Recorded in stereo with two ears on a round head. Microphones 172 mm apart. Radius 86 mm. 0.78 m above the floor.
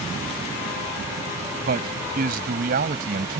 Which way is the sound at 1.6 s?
50° right (ahead or behind).